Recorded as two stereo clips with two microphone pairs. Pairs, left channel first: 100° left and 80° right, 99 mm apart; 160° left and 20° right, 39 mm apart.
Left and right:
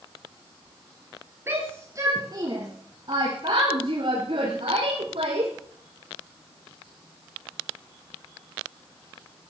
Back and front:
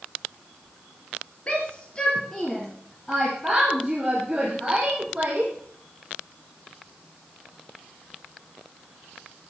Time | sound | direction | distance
1.5 | a shout | 140° right | 2.5 m